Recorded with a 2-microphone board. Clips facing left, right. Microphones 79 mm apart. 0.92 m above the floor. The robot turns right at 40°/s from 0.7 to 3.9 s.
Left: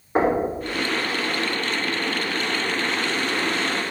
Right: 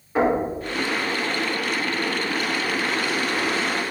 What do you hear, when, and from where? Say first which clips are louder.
0.1 s knocking: even; 35° left (ahead or behind), 3 m